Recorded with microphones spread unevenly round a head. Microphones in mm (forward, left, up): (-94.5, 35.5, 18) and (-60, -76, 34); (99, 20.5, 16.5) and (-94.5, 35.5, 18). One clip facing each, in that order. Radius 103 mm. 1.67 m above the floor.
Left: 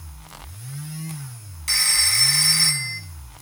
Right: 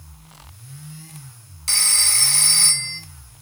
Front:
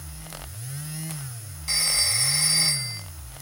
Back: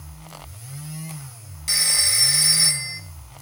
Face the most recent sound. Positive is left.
turn(degrees=-115)